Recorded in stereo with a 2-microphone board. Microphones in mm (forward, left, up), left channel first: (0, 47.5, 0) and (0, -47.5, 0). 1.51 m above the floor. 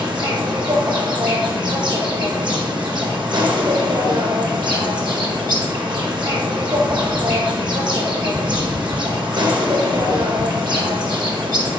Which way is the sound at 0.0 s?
50° right (ahead or behind).